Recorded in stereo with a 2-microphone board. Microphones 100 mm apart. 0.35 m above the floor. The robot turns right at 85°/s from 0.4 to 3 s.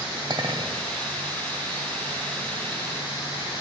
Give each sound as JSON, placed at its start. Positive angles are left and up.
{"t": 0.3, "sound": "a clink", "azimuth_deg": -105, "distance_m": 1.3}